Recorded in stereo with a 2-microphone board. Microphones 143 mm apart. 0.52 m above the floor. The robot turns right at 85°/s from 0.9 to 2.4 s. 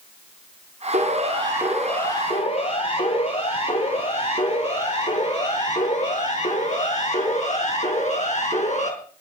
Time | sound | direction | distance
0.9 | a siren | 70° right (ahead or behind) | 10 m